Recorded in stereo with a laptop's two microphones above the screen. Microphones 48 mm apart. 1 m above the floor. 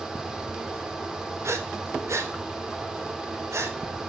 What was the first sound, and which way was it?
A fan, 10° right (ahead or behind).